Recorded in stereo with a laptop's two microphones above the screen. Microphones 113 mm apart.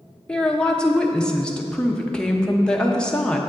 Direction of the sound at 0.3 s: 10° left (ahead or behind).